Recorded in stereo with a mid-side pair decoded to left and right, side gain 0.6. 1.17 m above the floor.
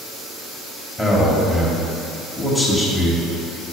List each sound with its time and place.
1.0 s a man speaking: straight ahead, 1.5 m